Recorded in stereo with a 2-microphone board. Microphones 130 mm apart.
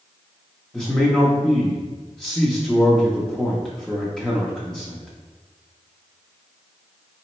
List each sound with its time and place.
0.7 s a man speaking: 5° left (ahead or behind), 0.7 m